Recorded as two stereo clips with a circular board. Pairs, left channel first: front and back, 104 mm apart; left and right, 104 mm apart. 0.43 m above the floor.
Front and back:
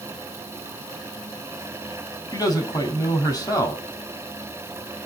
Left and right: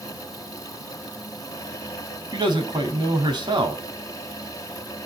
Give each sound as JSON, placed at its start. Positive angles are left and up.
{"t": 2.3, "sound": "a man speaking", "azimuth_deg": -50, "distance_m": 3.5}